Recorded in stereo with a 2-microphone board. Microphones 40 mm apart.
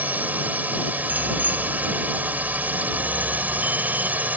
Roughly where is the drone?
Right.